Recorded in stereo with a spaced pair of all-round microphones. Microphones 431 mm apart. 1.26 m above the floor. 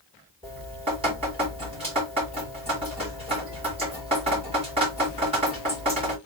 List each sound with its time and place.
0.4 s dripping: 15° right (ahead or behind), 2.5 m